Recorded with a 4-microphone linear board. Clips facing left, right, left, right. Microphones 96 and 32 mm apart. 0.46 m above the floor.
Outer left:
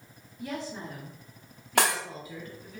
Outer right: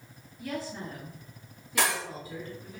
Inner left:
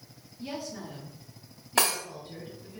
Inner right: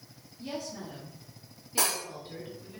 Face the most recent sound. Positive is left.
turn(degrees=60)  # may be behind; listen again after turning